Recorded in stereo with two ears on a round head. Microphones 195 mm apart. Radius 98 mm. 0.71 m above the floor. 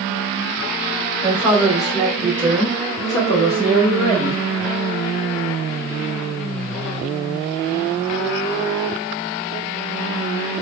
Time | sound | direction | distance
1.2 | a woman speaking | 10° right (ahead or behind) | 1.2 m